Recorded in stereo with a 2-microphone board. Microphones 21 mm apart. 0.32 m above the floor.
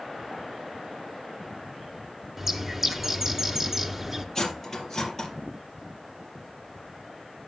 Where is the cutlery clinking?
20° left (ahead or behind), 4.5 m.